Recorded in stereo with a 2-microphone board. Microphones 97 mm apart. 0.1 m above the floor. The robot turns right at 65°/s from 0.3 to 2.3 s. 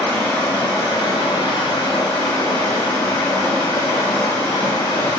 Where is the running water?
20° left, 2.0 m; by 5.2 s 150° left, 2.0 m.